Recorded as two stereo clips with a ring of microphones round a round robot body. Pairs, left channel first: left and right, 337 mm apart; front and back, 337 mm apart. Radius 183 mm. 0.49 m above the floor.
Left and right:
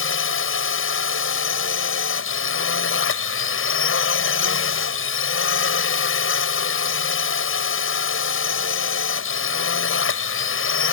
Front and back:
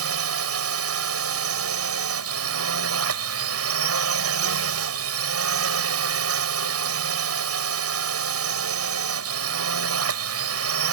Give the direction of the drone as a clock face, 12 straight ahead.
7 o'clock.